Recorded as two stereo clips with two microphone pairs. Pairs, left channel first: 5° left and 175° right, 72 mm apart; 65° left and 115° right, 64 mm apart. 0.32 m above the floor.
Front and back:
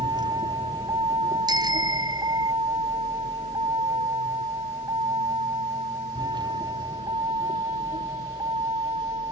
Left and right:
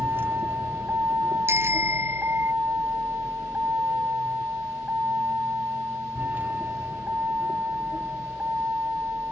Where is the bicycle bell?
160° right.